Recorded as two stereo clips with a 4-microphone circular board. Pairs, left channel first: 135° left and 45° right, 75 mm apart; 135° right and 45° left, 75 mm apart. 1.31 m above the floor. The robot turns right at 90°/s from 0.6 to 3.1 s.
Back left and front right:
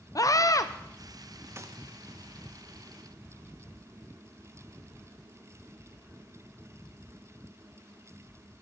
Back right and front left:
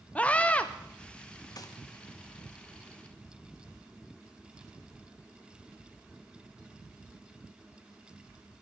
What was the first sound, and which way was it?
A scream, 155° left.